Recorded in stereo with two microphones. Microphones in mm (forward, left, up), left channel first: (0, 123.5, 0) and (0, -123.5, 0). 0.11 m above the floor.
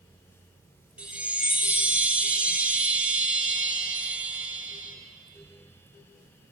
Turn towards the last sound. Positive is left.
turn(degrees=-5)  # may be behind; listen again after turning